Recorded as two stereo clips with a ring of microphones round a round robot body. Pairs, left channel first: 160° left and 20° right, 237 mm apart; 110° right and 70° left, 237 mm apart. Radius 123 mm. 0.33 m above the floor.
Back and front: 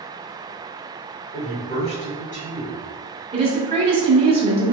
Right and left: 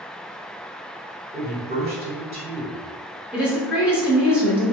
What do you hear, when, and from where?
1.3 s a man speaking: 115° left, 1.8 m
3.3 s a woman speaking: 10° right, 0.9 m